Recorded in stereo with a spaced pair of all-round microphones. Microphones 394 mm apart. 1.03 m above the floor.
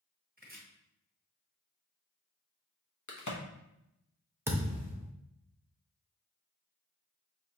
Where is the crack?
50° left (ahead or behind), 1.0 m.